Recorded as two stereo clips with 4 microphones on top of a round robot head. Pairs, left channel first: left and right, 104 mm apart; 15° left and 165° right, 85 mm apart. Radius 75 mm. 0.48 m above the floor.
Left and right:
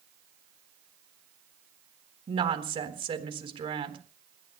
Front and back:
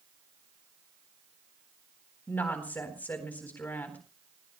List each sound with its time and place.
2.3 s a woman speaking: 60° right, 4 m